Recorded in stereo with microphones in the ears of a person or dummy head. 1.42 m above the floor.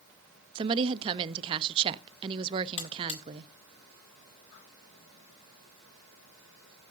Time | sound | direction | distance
0.6 | a woman speaking | 25° right (ahead or behind) | 0.6 m
2.8 | a buzzer | 35° left (ahead or behind) | 1.7 m